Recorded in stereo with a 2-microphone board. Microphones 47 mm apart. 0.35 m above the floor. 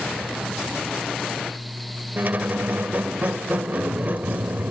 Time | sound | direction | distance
2.2 | a squeak | 40° right (ahead or behind) | 0.5 m